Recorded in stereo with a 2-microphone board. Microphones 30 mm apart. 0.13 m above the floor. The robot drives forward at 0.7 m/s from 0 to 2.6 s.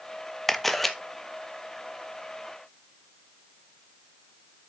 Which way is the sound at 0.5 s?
10° left (ahead or behind).